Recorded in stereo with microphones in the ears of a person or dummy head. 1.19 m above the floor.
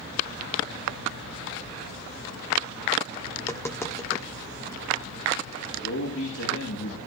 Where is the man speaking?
70° left (ahead or behind), 3 m.